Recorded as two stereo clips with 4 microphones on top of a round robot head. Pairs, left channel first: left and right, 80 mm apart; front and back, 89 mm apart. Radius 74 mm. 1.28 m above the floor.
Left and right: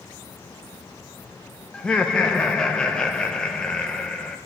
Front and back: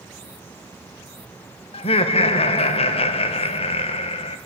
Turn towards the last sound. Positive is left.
turn(degrees=10)